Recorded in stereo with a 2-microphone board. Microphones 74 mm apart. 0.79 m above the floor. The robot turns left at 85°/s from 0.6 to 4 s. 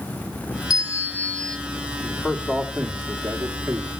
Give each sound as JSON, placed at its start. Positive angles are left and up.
{"t": 0.7, "sound": "a bell", "azimuth_deg": 75, "distance_m": 1.4}
{"t": 2.0, "sound": "a man speaking", "azimuth_deg": 15, "distance_m": 1.8}